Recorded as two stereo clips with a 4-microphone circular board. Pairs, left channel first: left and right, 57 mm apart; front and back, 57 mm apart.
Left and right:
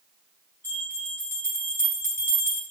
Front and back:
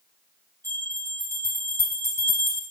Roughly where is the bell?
Ahead left.